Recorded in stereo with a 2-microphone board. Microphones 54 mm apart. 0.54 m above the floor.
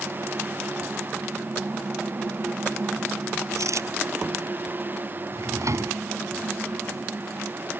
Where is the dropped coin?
70° right (ahead or behind).